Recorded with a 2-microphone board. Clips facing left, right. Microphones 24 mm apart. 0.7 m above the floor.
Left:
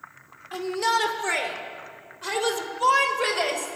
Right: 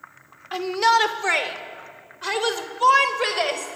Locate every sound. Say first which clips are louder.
0.5 s a shout: right 5 dB; 30° right (ahead or behind), 1.9 m; by 3.8 s 15° right (ahead or behind), 3.5 m